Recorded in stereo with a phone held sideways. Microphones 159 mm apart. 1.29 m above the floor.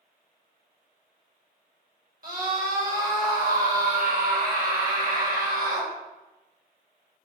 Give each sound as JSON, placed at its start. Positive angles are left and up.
{"t": 2.2, "sound": "a scream", "side_deg": -70, "distance_m": 4.0}